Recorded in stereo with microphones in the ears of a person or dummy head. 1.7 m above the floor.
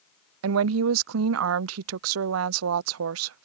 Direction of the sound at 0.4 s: 75° right (ahead or behind).